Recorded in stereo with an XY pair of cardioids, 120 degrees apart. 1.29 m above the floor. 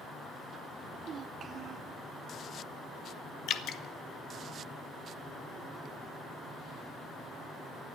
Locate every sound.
0.8 s a child speaking: 55° right, 0.5 m
3.5 s dripping: 65° left, 0.8 m